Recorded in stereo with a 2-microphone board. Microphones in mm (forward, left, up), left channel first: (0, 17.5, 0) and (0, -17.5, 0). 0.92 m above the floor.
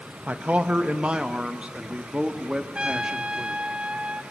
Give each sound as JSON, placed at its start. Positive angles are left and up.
{"t": 0.3, "sound": "a man speaking", "side_deg": -45, "distance_m": 1.1}
{"t": 2.8, "sound": "a trumpet", "side_deg": -30, "distance_m": 1.1}